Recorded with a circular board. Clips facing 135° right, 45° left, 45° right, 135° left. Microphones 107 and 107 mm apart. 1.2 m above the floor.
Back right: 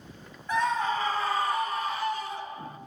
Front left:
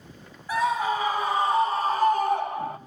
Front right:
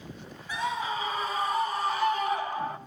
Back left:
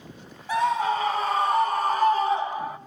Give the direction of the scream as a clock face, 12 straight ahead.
8 o'clock.